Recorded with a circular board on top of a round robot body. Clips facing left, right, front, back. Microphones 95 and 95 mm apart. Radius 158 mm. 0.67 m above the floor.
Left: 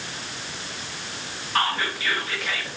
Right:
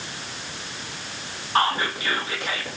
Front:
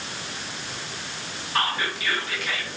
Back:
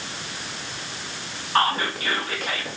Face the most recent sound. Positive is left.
turn(degrees=-145)